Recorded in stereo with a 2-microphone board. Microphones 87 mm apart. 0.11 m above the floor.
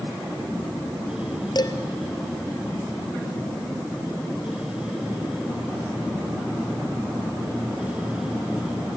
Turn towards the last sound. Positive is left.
turn(degrees=55)  # may be behind; listen again after turning